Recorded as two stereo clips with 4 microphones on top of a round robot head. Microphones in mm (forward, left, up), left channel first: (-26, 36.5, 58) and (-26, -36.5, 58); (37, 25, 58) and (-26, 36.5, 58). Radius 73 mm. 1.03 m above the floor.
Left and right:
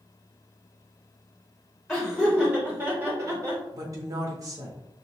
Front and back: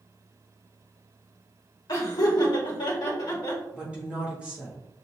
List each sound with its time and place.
1.9 s laughter: 5° left, 1.3 m; by 3.6 s 50° right, 1.3 m
3.7 s a woman speaking: 120° right, 1.4 m